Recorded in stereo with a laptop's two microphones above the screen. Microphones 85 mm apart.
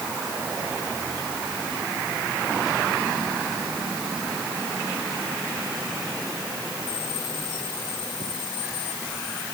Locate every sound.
Only background noise.